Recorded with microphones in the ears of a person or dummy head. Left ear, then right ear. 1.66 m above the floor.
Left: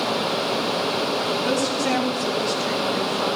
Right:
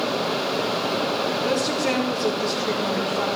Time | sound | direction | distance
1.4 | a woman speaking | 5° right (ahead or behind) | 4 m